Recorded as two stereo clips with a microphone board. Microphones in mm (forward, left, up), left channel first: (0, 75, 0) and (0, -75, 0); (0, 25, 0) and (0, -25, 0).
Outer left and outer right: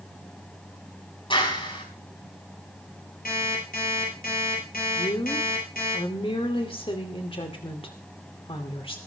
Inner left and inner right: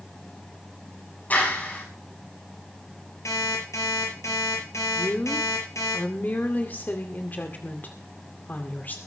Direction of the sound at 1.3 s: 35° left (ahead or behind).